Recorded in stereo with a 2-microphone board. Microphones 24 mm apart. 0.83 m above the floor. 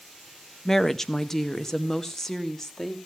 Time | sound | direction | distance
0.7 | a woman speaking | 15° left (ahead or behind) | 0.7 m